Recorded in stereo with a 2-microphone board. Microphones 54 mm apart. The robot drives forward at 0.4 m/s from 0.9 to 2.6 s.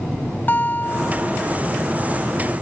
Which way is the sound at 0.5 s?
35° left (ahead or behind).